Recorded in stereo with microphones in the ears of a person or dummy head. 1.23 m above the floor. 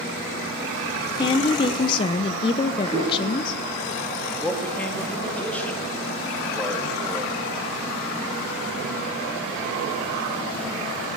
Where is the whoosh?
45° left (ahead or behind), 9.5 m.